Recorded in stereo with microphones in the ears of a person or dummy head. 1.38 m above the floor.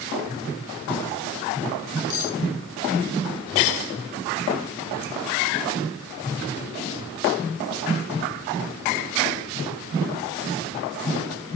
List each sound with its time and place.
2.1 s cutlery clinking: 65° left (ahead or behind), 1.4 m